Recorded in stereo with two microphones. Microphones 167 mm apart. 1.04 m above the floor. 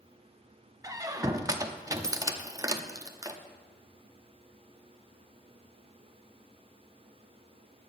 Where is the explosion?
I don't hear an explosion.